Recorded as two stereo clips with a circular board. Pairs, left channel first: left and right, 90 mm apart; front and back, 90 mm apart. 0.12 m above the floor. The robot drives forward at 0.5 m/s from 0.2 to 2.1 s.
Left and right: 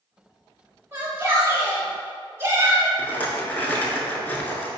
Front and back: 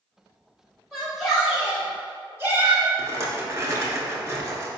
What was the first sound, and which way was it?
A shout, 80° right.